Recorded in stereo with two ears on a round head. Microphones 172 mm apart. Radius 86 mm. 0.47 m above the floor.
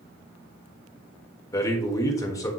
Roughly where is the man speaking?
Centre.